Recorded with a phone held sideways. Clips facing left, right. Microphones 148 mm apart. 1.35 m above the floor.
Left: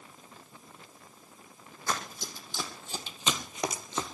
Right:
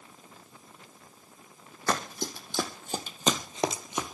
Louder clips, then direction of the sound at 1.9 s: Right 5 dB; 65° right (ahead or behind).